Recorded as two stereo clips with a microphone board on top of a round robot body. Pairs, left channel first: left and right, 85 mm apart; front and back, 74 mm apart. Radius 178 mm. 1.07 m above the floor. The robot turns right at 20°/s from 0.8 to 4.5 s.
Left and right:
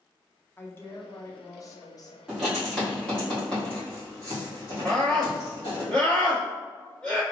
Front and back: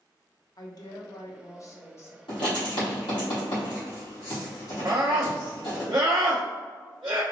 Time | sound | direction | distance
0.6 | a woman speaking | 25° left | 0.9 m
2.3 | writing | 5° right | 1.9 m
4.8 | a scream | 165° left | 1.0 m